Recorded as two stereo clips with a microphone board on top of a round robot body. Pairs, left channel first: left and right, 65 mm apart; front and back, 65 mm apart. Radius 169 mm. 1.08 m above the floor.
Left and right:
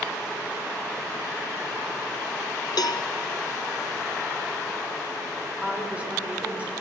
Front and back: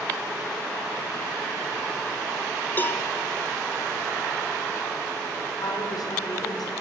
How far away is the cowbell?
About 0.7 m.